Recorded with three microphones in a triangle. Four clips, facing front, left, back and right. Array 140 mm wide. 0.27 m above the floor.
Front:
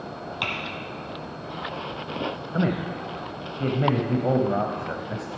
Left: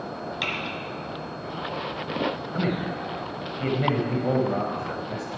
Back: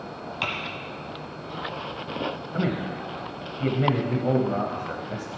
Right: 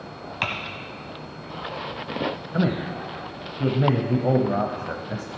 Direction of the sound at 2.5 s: 50° right.